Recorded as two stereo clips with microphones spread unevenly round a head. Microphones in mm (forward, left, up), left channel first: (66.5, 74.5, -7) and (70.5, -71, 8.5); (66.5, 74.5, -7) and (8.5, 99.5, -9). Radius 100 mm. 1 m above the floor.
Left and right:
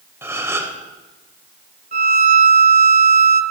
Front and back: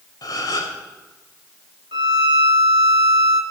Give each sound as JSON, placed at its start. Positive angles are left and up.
{"t": 0.2, "sound": "a gasp", "azimuth_deg": -15, "distance_m": 1.9}
{"t": 1.9, "sound": "a violin", "azimuth_deg": -145, "distance_m": 0.6}